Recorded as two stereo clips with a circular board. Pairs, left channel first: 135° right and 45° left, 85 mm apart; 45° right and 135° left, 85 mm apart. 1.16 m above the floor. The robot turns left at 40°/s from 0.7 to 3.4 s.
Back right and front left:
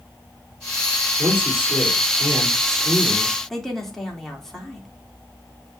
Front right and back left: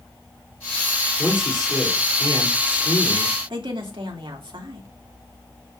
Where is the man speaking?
55° left, 3.5 m; by 3.4 s 30° right, 3.5 m.